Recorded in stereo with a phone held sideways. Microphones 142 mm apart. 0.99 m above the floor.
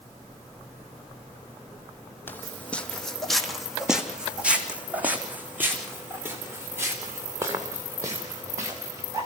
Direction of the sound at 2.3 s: 15° left (ahead or behind).